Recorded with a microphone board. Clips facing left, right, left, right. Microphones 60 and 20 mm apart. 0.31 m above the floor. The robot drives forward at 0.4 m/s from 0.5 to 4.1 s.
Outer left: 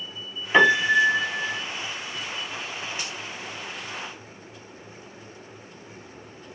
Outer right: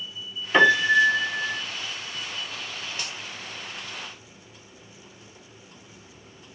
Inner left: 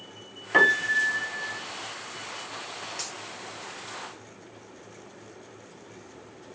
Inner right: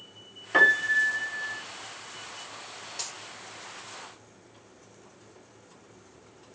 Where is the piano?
10° left (ahead or behind), 1.1 m; by 1.6 s 15° left (ahead or behind), 0.7 m.